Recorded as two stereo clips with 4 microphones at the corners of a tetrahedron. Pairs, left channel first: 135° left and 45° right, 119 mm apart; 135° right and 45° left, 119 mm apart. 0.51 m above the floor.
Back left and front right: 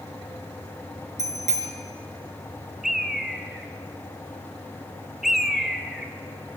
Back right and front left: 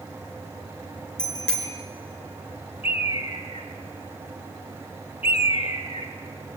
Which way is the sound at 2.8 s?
135° right.